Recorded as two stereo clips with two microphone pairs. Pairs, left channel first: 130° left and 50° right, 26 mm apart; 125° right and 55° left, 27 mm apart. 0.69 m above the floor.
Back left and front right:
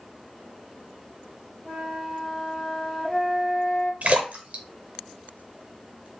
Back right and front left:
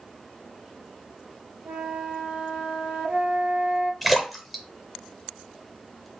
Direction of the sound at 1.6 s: 50° left.